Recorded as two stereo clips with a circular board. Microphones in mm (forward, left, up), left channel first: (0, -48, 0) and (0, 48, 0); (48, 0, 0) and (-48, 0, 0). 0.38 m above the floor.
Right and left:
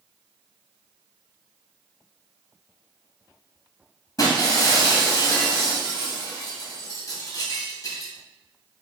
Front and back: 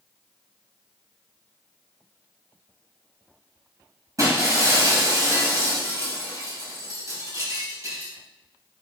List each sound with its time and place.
4.2 s breaking glass: 130° right, 1.5 m